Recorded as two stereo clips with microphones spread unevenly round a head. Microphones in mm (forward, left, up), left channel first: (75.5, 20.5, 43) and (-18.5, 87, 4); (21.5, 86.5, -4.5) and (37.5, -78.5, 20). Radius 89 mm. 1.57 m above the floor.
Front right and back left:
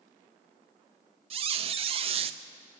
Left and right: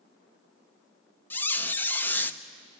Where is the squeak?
Straight behind, 0.6 m.